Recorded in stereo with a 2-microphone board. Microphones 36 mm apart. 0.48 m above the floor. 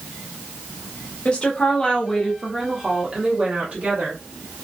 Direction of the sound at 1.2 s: 30° left (ahead or behind).